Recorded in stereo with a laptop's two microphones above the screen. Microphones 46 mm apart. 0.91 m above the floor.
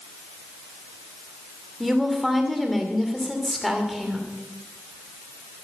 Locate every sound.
1.8 s a woman speaking: centre (ahead or behind), 2.5 m